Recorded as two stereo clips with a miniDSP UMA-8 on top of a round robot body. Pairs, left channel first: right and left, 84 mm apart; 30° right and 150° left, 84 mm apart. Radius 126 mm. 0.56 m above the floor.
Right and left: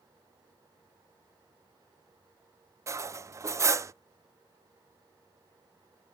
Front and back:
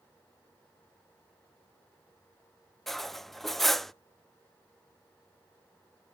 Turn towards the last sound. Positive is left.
turn(degrees=55)